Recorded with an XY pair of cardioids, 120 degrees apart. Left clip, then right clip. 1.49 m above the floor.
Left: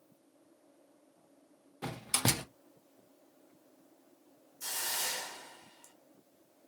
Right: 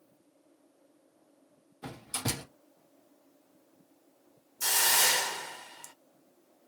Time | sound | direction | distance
1.8 | a door slam | 65° left | 1.3 m
4.6 | a hiss | 60° right | 0.5 m